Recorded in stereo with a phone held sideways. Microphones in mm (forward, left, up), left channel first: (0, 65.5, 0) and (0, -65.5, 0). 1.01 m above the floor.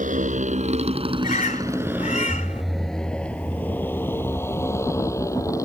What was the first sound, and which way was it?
A motorcycle, 80° right.